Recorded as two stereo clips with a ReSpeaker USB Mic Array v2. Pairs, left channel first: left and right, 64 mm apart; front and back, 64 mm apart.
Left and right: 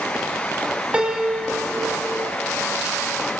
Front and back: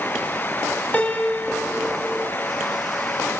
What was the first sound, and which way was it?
A piano, 35° right.